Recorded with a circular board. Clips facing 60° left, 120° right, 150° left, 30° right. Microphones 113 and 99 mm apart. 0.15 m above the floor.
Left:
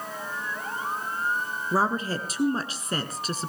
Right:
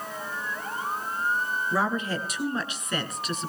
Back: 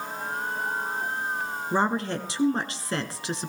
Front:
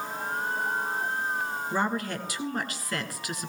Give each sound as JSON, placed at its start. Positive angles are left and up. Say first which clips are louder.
{"t": 1.7, "sound": "a woman speaking", "louder": "left 3 dB, back 5 dB", "azimuth_deg": 100, "distance_m": 1.4}